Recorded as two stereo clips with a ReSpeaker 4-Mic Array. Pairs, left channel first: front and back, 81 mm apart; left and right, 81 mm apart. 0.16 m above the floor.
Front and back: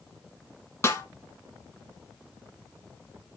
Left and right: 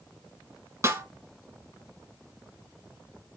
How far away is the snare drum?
About 1.1 m.